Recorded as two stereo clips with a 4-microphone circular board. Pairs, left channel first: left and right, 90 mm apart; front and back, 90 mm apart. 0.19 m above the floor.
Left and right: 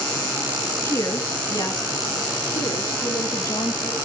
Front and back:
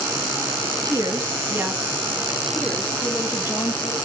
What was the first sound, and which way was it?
A woman speaking, 145° left.